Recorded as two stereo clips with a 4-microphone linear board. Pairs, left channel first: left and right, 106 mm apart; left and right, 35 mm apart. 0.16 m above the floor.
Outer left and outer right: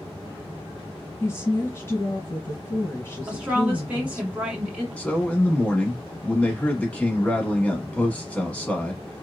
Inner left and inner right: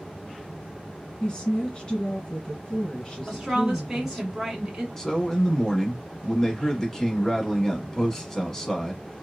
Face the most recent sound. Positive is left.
turn(degrees=15)  # may be behind; listen again after turning